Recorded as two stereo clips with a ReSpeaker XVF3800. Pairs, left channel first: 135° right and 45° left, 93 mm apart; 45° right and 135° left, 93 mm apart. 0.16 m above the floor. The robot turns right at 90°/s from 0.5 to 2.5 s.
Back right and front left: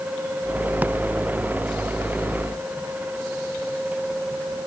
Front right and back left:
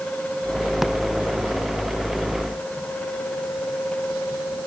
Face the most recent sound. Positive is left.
No sound to turn to.